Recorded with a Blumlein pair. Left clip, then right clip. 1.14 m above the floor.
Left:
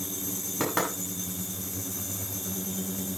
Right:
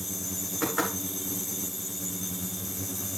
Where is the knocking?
40° left, 7.5 m.